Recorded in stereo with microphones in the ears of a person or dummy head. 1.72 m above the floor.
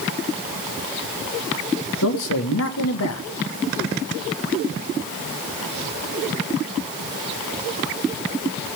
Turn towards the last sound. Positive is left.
turn(degrees=70)  # may be behind; listen again after turning